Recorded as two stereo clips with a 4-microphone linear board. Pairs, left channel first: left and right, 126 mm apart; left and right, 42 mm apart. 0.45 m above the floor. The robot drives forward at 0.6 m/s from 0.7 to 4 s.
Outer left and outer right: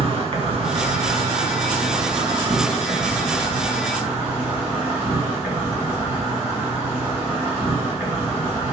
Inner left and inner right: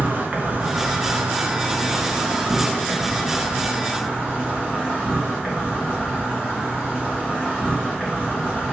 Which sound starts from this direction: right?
An insect, at 0.0 s.